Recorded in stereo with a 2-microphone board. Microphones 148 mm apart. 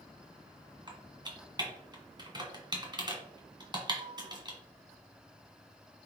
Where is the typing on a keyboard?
30° right (ahead or behind), 1.7 m.